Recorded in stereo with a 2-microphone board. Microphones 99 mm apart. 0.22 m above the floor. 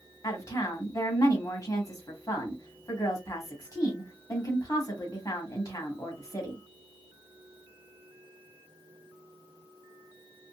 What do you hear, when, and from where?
0.2 s a woman speaking: 35° left (ahead or behind), 1.1 m